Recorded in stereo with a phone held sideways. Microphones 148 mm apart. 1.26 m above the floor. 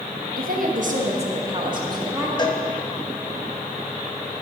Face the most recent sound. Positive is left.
turn(degrees=30)  # may be behind; listen again after turning